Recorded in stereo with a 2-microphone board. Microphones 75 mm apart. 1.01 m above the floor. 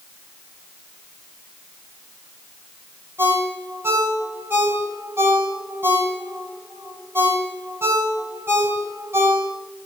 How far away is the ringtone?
About 3 m.